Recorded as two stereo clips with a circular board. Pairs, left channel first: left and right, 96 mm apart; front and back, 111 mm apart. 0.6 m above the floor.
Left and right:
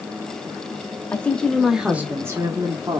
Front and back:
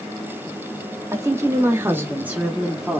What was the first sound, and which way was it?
A woman speaking, 145° left.